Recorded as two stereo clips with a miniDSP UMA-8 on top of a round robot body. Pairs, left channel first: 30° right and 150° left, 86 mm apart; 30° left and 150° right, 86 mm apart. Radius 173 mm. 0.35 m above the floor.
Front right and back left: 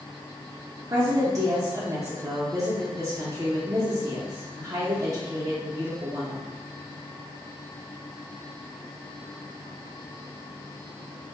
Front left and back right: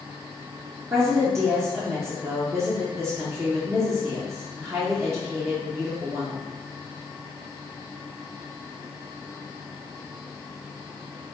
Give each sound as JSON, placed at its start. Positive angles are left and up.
{"t": 0.9, "sound": "a woman speaking", "azimuth_deg": 175, "distance_m": 1.1}